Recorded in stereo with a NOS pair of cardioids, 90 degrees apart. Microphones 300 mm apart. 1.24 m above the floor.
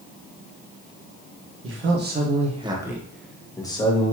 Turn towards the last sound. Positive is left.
turn(degrees=20)